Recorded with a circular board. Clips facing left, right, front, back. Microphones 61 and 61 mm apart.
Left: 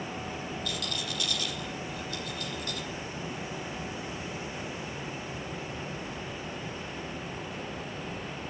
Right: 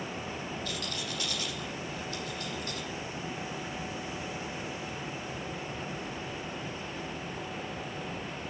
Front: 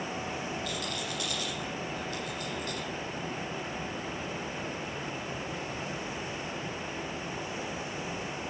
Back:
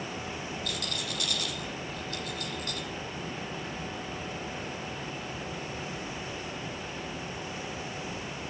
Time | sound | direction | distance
0.7 | a rattle | 145° right | 6 m